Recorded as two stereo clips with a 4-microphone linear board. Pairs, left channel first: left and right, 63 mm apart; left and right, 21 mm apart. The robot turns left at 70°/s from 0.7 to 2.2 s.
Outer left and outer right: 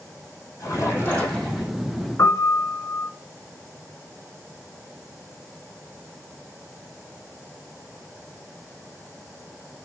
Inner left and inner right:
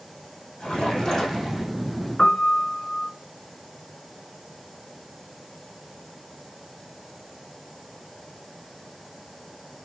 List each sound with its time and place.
0.6 s a splash: 55° left, 5 m; by 1.7 s 15° right, 5 m
2.2 s a piano: 50° left (ahead or behind), 1.6 m